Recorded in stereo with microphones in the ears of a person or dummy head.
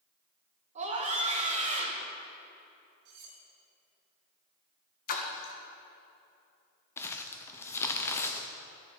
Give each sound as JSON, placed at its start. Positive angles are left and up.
{"t": 0.8, "sound": "a scream", "side_deg": -40, "distance_m": 1.5}
{"t": 3.0, "sound": "cutlery clinking", "side_deg": -60, "distance_m": 2.0}
{"t": 5.1, "sound": "a splash", "side_deg": 60, "distance_m": 1.1}
{"t": 7.0, "sound": "crumpling", "side_deg": 20, "distance_m": 0.6}